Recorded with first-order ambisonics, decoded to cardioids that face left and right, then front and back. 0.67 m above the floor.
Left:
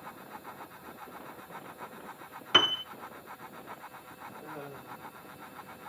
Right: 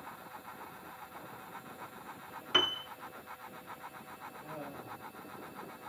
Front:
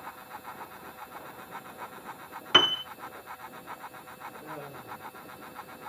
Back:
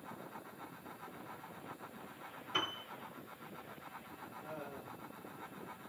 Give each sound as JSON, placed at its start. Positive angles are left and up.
{"t": 2.5, "sound": "a piano", "azimuth_deg": 20, "distance_m": 0.6}
{"t": 4.4, "sound": "laughter", "azimuth_deg": 30, "distance_m": 8.0}